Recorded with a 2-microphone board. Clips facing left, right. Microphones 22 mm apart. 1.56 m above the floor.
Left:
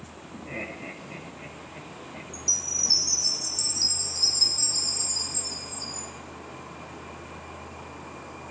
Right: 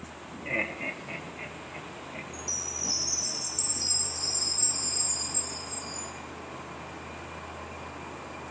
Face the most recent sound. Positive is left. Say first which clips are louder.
# left 8 dB
turn(degrees=40)  # may be behind; listen again after turning